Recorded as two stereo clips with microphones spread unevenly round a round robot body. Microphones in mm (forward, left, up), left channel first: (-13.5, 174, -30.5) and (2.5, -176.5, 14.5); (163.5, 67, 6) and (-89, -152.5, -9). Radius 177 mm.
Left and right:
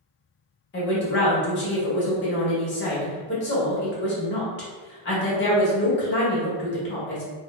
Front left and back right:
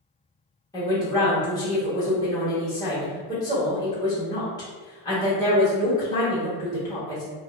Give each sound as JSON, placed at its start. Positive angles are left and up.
{"t": 0.7, "sound": "a woman speaking", "azimuth_deg": 120, "distance_m": 0.9}